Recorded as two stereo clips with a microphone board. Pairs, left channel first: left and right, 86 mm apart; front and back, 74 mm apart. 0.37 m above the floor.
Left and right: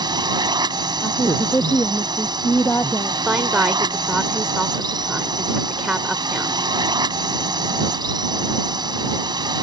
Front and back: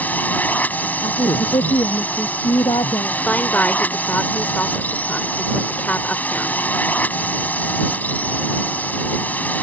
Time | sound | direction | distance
0.0 | a drone | 65° right | ?
1.0 | a woman speaking | 20° left | ?
3.2 | a woman speaking | 25° right | ?